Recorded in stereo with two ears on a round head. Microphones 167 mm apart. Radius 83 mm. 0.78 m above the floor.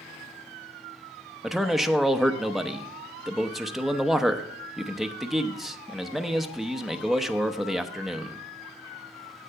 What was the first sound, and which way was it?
A man speaking, centre (ahead or behind).